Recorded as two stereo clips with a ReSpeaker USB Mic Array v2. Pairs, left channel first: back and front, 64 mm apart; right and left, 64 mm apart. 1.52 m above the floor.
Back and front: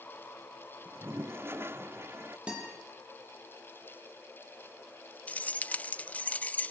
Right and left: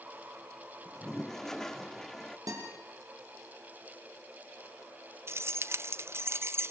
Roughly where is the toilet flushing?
Ahead.